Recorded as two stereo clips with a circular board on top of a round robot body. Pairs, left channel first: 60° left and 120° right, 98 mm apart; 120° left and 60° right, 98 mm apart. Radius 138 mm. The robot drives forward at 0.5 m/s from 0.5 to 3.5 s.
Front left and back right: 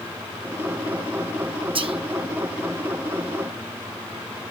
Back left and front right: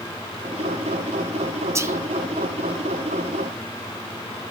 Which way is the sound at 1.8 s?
115° right.